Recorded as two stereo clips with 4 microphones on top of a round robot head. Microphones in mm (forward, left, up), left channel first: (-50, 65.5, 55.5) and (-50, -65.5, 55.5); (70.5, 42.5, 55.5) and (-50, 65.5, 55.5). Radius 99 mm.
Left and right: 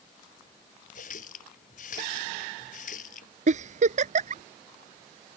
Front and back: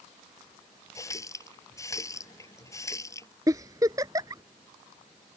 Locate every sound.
0.9 s a running tap: 55° left
3.5 s a giggle: 120° right